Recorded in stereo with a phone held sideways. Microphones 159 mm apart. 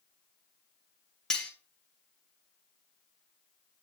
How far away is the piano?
I don't hear a piano.